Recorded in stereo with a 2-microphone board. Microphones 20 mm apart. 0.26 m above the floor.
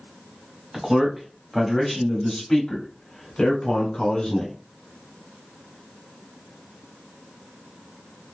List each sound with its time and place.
0.7 s a man speaking: 20° right (ahead or behind), 1.4 m; by 4.5 s 55° left (ahead or behind), 1.6 m